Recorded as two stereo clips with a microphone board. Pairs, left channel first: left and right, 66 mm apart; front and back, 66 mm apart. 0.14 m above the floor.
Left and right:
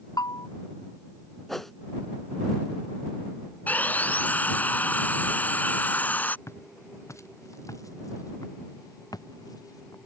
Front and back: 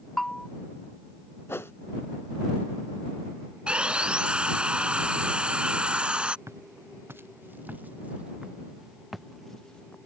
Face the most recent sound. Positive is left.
turn(degrees=75)